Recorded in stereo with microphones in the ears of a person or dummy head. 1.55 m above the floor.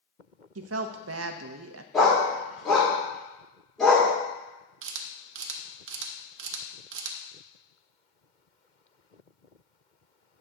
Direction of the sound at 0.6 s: 80° right.